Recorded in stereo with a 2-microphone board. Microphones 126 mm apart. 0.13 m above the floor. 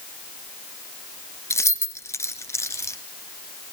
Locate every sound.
1.5 s keys jangling: 20° left (ahead or behind), 1.1 m